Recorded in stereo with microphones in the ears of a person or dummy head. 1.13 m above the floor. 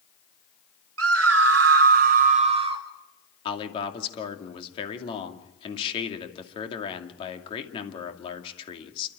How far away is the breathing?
No breathing in this recording.